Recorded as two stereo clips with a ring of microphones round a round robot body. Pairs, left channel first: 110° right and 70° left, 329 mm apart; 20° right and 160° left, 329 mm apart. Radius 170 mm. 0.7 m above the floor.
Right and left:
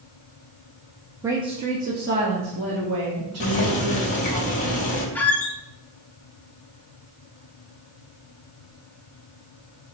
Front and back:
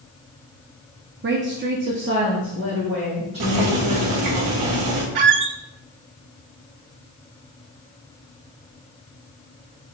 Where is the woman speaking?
145° left, 0.9 m; by 4.4 s 100° left, 2.5 m.